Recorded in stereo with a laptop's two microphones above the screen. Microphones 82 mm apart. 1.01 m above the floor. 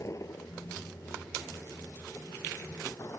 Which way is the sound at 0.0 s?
40° left (ahead or behind).